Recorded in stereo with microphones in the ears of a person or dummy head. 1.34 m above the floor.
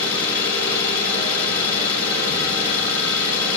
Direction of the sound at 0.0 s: 10° left (ahead or behind).